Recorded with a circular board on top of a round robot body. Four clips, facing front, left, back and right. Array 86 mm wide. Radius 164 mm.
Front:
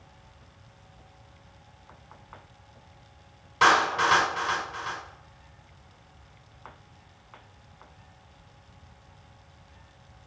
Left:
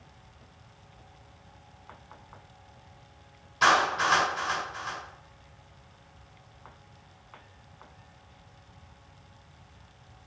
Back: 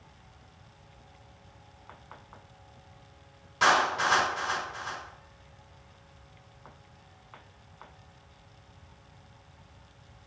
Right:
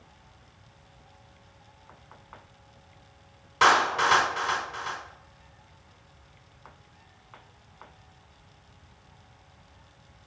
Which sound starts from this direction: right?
A clap, at 3.6 s.